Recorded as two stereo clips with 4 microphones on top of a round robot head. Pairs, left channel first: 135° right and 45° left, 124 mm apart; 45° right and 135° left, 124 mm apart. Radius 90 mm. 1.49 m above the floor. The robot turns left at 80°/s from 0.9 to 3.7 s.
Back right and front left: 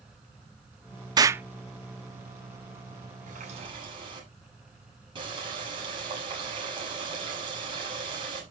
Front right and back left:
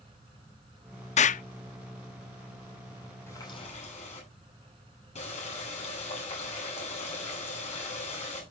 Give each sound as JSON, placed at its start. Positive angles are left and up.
{"t": 1.2, "sound": "an explosion", "azimuth_deg": -15, "distance_m": 0.5}
{"t": 3.3, "sound": "a running tap", "azimuth_deg": 25, "distance_m": 7.5}